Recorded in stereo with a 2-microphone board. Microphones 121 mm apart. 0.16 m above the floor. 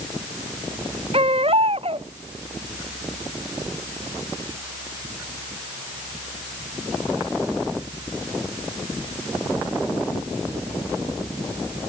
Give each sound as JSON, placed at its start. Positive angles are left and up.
{"t": 1.1, "sound": "a baby crying", "side_deg": -50}